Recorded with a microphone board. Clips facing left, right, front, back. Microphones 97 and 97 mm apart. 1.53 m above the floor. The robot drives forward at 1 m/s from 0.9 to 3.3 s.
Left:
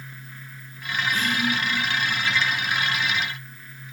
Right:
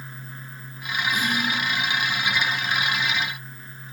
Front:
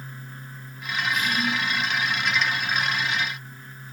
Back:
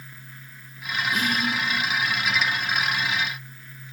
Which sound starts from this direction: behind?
Whispering, at 1.1 s.